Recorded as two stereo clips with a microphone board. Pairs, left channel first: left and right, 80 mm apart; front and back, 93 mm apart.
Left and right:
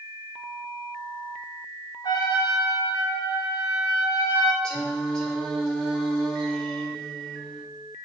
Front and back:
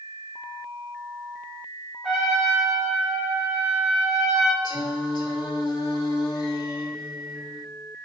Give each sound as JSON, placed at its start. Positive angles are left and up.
{"t": 2.0, "sound": "a trumpet", "azimuth_deg": 90, "distance_m": 1.8}
{"t": 4.6, "sound": "singing", "azimuth_deg": 10, "distance_m": 1.4}